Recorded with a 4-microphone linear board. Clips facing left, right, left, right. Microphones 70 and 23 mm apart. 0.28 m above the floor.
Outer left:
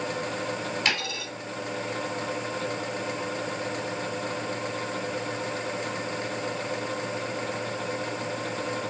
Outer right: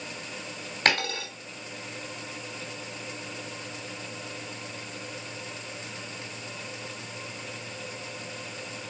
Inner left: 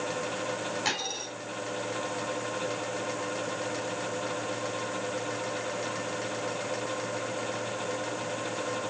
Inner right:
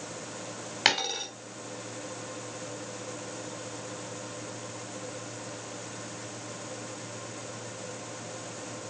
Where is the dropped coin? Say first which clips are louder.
Outer right 8 dB, inner right 8 dB; 50° right (ahead or behind), 2 m.